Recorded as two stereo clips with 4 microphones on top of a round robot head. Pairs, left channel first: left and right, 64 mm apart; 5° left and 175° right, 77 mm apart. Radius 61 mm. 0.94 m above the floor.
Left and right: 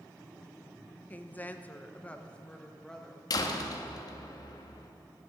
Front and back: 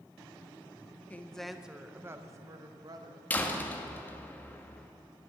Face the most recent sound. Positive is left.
turn(degrees=75)